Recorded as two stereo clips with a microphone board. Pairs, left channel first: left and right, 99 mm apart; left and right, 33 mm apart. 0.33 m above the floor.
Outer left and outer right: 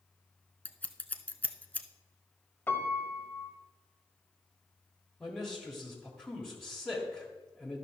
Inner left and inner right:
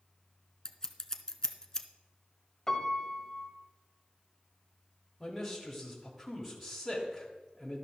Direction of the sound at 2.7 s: 20° left (ahead or behind).